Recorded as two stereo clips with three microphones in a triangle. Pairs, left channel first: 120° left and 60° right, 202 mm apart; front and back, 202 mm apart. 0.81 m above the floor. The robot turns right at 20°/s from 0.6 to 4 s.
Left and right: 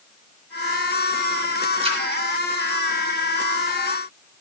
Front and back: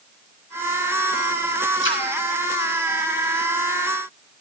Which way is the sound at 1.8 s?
Straight ahead.